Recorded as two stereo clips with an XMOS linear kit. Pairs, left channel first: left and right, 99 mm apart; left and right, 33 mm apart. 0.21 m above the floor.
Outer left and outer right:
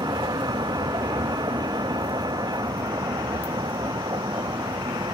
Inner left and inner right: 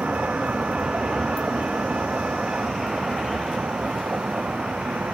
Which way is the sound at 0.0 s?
45° right (ahead or behind).